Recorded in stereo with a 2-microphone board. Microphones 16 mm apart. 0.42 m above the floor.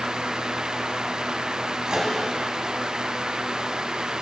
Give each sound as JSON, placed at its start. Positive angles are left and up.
{"t": 1.9, "sound": "a microwave", "side_deg": -60, "distance_m": 2.5}